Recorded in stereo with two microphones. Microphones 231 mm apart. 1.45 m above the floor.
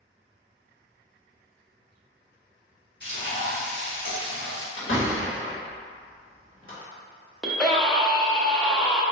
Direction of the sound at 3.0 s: 50° left (ahead or behind).